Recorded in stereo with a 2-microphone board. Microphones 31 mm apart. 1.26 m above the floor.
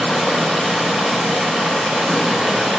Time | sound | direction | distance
0.0 | running water | 20° right (ahead or behind) | 1.4 m